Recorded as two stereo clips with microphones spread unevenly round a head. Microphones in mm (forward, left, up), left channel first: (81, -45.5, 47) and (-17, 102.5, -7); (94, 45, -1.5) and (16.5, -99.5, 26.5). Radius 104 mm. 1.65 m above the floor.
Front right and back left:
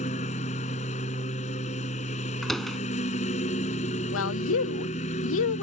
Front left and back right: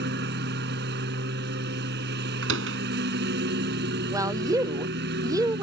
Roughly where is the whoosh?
I don't hear a whoosh.